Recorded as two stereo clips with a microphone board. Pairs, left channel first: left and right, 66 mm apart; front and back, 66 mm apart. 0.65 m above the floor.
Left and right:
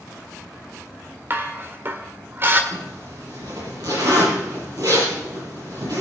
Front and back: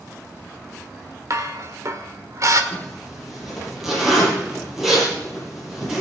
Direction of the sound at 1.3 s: 145° right.